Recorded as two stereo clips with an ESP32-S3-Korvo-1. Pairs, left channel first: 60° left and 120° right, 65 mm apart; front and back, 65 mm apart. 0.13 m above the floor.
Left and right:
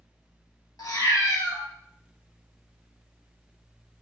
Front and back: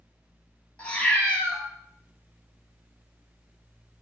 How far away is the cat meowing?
About 0.7 m.